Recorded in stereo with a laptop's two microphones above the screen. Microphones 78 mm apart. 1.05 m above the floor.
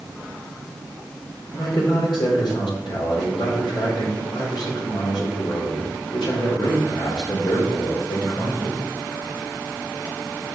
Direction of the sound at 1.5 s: 85° left.